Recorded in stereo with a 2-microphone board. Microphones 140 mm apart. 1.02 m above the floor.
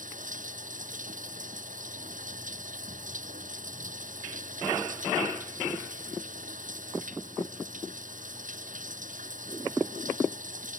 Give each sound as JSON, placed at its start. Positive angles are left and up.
{"t": 0.0, "sound": "running water", "side_deg": -70}